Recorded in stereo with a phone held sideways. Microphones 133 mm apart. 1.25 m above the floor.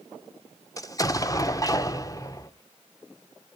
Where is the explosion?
25° left (ahead or behind), 0.8 m.